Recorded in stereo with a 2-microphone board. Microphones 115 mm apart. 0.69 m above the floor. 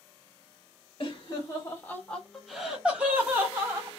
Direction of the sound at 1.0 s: 35° left (ahead or behind).